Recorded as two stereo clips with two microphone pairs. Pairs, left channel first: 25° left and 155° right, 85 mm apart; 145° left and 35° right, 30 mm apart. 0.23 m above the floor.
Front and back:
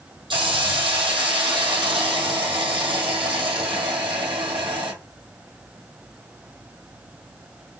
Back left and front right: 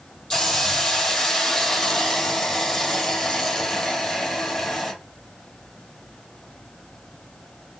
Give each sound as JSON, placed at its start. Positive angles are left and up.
{"t": 0.3, "sound": "a hiss", "azimuth_deg": -140, "distance_m": 1.6}